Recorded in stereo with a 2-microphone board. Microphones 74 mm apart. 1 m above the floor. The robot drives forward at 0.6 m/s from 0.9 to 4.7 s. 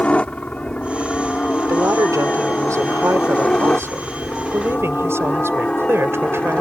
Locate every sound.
0.0 s a helicopter: 20° left (ahead or behind); by 6.6 s 15° left (ahead or behind)
1.7 s a woman speaking: 50° right (ahead or behind); by 6.6 s 35° right (ahead or behind)